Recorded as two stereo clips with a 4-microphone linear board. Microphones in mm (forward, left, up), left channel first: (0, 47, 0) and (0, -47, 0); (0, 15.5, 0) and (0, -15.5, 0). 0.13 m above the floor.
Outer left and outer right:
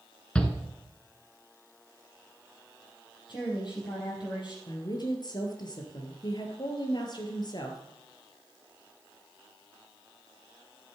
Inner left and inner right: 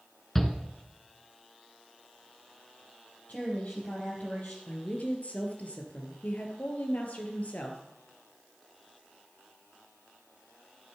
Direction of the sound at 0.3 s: 10° left (ahead or behind).